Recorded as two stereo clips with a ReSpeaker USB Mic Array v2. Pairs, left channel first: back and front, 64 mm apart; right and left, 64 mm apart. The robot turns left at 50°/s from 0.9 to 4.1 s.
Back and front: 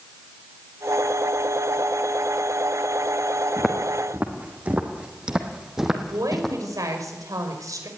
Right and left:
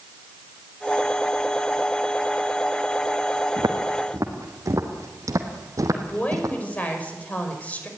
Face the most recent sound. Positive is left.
turn(degrees=-25)